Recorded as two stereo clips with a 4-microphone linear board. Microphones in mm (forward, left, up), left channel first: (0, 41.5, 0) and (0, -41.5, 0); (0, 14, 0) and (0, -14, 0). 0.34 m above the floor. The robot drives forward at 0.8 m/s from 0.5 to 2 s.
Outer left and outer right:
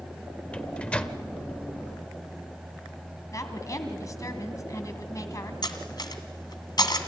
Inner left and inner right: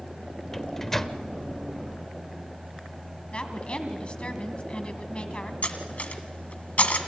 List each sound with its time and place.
0.5 s a microwave: 15° left (ahead or behind), 0.8 m; by 1.2 s 10° left (ahead or behind), 0.9 m
3.3 s a woman speaking: 40° left (ahead or behind), 2 m
5.6 s cutlery clinking: 55° left (ahead or behind), 1.9 m